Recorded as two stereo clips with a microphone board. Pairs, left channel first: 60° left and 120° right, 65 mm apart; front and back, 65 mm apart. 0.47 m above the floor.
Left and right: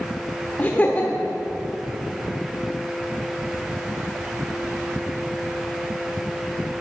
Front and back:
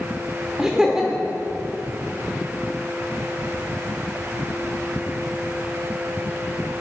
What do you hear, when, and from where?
0.6 s laughter: 105° left, 0.9 m